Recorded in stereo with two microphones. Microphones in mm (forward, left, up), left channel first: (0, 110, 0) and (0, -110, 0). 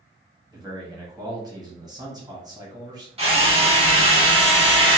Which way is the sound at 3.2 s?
25° right (ahead or behind).